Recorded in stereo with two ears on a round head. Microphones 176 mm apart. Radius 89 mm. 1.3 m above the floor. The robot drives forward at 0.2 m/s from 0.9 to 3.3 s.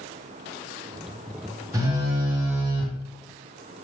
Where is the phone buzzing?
15° right (ahead or behind), 0.8 m.